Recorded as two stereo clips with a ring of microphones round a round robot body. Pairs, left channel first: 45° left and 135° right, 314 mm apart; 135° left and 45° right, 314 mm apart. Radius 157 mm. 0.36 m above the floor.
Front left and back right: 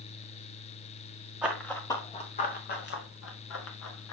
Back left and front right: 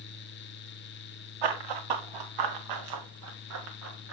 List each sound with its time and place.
1.4 s running footsteps: 50° right, 1.9 m; by 4.1 s 5° left, 3 m